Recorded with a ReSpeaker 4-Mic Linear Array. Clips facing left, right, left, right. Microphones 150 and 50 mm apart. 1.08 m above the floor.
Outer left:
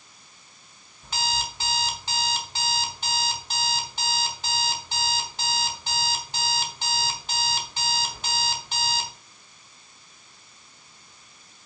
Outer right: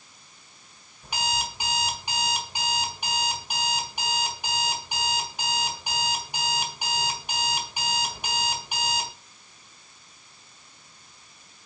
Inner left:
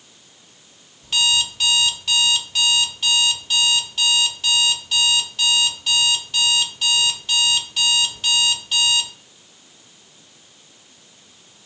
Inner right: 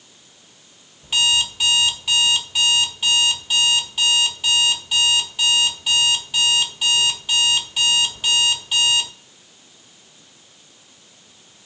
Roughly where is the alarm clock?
Centre.